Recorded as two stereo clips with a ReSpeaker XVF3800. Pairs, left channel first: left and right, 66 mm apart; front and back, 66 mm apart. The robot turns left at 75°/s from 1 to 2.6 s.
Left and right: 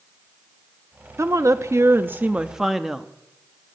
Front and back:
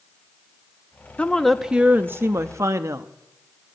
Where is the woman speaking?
65° right, 0.6 m; by 3.1 s 170° right, 0.6 m.